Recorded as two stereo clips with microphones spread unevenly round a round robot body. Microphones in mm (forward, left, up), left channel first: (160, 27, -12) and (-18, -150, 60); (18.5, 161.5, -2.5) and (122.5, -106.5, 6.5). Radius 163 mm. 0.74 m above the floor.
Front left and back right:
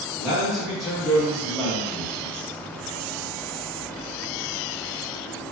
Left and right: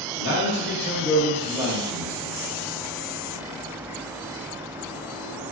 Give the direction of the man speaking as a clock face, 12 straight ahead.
8 o'clock.